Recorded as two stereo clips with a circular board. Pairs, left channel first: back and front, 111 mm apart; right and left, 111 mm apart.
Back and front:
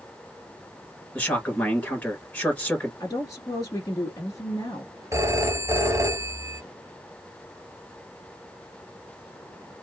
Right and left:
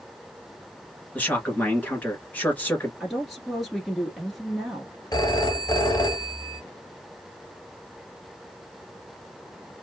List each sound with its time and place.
1.1 s a man speaking: 130° right, 1.8 m
3.0 s a woman speaking: 175° left, 1.4 m
5.1 s a phone ringing: 50° right, 0.9 m